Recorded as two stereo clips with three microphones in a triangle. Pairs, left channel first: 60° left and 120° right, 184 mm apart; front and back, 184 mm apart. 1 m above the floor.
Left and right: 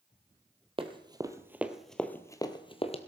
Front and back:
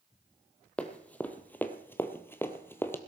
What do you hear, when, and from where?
0.8 s running footsteps: 80° right, 1.2 m; by 3.0 s 70° left, 1.1 m